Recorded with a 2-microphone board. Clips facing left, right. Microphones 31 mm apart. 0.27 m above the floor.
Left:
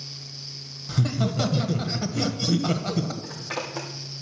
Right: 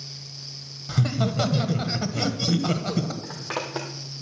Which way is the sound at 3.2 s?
55° right (ahead or behind).